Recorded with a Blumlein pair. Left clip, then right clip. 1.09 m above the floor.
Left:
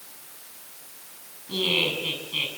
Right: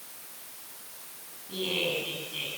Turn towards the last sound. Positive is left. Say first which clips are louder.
# left 6 dB
turn(degrees=70)